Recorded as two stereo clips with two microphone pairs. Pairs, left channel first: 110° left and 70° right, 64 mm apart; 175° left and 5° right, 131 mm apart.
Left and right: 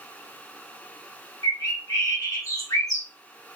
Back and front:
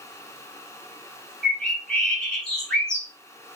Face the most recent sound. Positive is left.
turn(degrees=90)